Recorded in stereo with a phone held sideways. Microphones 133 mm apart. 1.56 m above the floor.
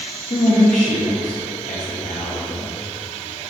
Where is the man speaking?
70° left (ahead or behind), 1.2 m.